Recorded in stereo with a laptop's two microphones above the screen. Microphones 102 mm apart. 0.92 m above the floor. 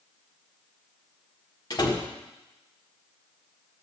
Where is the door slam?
45° left (ahead or behind), 1.8 m.